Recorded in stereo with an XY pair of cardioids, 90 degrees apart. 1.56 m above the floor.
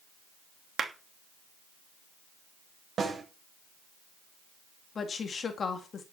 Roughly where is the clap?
Ahead right.